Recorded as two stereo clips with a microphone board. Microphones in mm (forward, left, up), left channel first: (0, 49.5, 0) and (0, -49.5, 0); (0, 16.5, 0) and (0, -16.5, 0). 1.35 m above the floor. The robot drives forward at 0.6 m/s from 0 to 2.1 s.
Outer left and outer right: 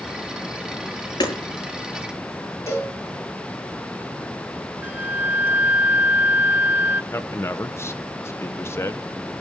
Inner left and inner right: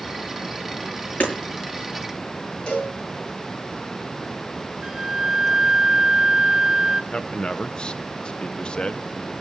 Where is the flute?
20° right (ahead or behind), 1.1 m.